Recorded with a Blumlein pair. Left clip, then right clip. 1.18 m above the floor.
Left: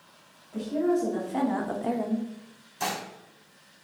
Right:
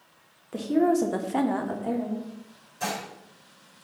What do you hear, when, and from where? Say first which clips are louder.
0.5 s a woman speaking: right 3 dB; 55° right, 0.8 m; by 2.3 s 35° left, 0.7 m
2.8 s dishes clattering: even; 65° left, 1.7 m